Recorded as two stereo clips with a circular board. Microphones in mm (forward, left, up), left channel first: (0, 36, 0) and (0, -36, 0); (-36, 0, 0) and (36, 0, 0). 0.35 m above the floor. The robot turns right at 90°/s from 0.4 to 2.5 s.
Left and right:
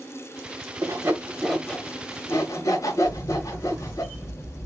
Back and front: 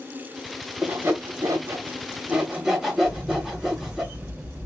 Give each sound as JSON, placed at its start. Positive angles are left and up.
{"t": 0.8, "sound": "sawing", "azimuth_deg": -65, "distance_m": 0.8}
{"t": 3.0, "sound": "a camera shutter", "azimuth_deg": 65, "distance_m": 1.6}